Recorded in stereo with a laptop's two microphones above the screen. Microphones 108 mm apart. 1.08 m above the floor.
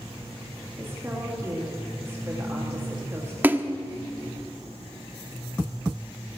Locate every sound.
0.8 s a woman speaking: 25° right (ahead or behind), 2.5 m
3.4 s a splash: 15° right (ahead or behind), 1.0 m